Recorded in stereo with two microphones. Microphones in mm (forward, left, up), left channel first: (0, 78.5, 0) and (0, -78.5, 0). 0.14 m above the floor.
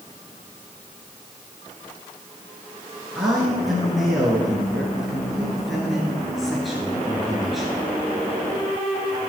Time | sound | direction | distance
3.1 | a man speaking | centre (ahead or behind) | 2 m